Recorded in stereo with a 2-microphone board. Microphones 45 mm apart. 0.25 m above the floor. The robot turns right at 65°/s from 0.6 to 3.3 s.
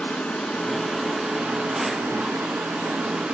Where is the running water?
150° left, 2 m; by 3.4 s 35° right, 2 m.